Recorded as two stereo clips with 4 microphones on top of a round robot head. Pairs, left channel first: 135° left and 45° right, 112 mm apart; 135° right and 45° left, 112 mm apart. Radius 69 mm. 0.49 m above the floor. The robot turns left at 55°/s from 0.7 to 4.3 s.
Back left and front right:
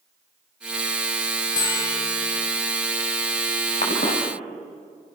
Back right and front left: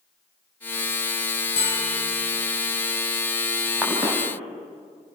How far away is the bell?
About 8 m.